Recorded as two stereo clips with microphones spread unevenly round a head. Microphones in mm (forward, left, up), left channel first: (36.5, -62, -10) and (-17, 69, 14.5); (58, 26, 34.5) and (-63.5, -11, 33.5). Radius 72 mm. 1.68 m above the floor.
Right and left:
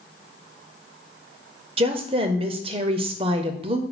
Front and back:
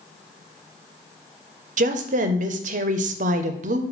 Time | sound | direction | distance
1.8 | a woman speaking | 165° left | 0.6 m